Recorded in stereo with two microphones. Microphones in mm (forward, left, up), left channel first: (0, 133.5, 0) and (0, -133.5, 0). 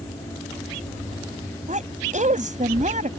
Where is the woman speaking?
25° right (ahead or behind).